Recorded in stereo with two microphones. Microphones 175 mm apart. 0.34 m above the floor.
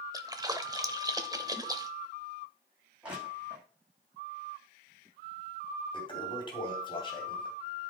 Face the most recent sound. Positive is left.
turn(degrees=30)  # may be behind; listen again after turning